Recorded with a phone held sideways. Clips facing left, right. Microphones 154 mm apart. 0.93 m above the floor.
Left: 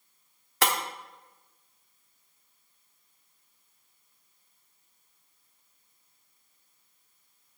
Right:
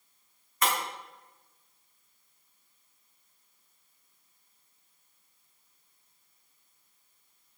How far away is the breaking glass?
About 1.0 m.